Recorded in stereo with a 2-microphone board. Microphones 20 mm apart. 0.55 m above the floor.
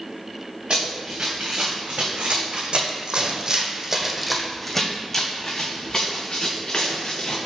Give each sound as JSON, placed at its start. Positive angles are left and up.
{"t": 0.7, "sound": "running footsteps", "side_deg": -70, "distance_m": 2.5}